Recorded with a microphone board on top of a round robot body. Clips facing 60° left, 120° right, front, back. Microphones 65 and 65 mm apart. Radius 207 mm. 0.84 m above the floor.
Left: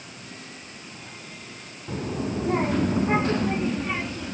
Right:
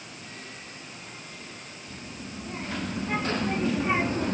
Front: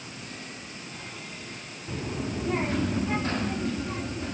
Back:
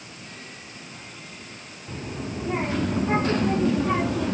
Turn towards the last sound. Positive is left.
turn(degrees=-170)